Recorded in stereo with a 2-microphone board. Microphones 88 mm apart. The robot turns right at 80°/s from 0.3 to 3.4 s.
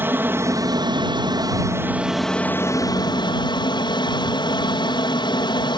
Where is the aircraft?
150° right; by 5.8 s 95° left.